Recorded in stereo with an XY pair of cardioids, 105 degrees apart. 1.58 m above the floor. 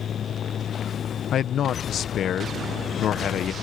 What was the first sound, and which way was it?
A fan, 50° left.